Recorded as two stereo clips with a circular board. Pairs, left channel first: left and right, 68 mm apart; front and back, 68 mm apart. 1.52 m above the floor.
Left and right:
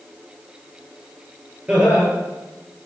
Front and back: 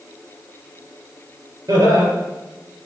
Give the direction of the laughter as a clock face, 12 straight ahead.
5 o'clock.